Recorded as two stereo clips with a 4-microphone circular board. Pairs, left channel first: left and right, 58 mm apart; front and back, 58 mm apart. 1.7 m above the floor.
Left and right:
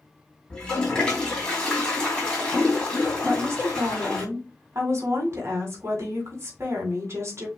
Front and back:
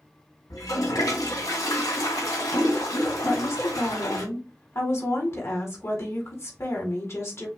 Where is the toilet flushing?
10° left, 2.5 m.